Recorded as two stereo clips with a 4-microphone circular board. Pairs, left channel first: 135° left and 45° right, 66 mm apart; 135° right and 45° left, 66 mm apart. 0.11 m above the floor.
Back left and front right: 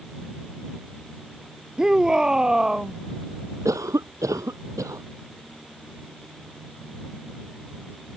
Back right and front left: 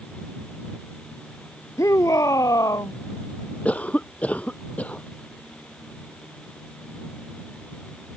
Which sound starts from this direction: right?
A cough, at 3.6 s.